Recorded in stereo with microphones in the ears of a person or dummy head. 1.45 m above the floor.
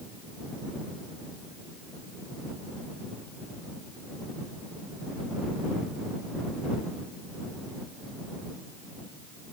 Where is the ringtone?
I don't hear a ringtone.